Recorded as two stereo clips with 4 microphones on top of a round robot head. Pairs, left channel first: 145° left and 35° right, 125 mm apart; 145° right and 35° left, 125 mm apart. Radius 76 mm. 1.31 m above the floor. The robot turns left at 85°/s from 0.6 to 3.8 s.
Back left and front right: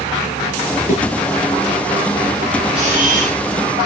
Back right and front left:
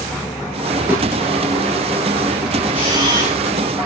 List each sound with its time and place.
0.9 s a thud: 115° left, 6 m; by 1.0 s 105° left, 6 m
2.7 s a camera shutter: 10° left, 7.5 m; by 3.4 s 45° right, 7.5 m